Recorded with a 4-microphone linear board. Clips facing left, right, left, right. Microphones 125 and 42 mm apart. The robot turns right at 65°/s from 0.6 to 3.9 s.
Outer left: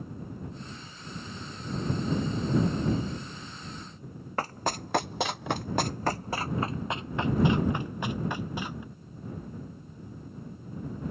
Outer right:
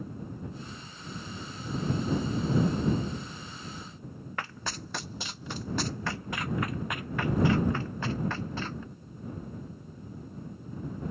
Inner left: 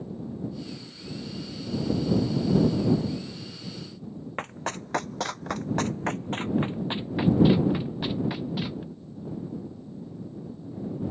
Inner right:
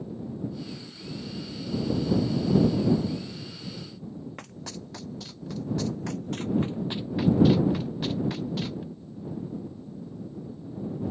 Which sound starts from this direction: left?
Running footsteps, at 4.4 s.